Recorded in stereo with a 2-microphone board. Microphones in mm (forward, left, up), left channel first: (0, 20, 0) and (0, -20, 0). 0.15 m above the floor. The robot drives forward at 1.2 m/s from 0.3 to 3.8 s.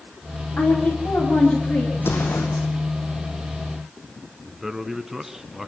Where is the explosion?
70° left (ahead or behind), 2.5 m; by 2.7 s 50° left (ahead or behind), 3 m.